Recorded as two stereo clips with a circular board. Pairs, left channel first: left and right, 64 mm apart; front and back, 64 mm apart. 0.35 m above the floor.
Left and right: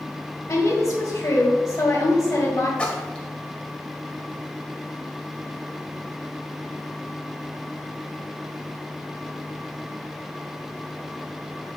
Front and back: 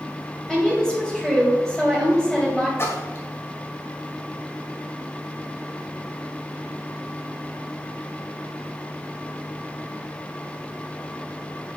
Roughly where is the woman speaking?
Left.